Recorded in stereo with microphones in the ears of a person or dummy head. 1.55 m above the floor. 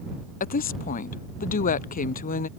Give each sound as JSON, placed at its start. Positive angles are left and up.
{"t": 0.4, "sound": "a woman speaking", "side_deg": 40}